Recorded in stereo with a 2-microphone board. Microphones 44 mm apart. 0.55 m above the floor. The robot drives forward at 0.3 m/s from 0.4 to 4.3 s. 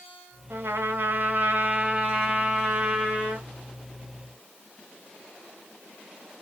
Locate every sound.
0.5 s a trumpet: 60° right (ahead or behind), 0.8 m; by 3.5 s 30° right (ahead or behind), 1.3 m